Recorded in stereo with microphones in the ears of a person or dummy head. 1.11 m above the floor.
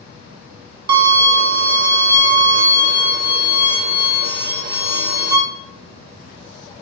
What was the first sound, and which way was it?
A violin, 60° right (ahead or behind).